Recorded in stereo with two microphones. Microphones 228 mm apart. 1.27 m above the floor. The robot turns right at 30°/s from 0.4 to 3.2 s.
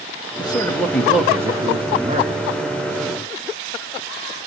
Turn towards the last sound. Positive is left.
turn(degrees=-115)